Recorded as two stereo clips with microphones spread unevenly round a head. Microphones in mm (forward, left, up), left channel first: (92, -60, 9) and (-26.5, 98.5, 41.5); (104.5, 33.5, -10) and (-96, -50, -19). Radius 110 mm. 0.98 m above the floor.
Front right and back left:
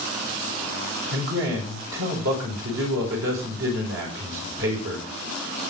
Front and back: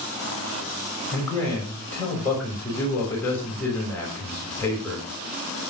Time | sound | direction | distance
1.1 | a man speaking | 105° left | 6 m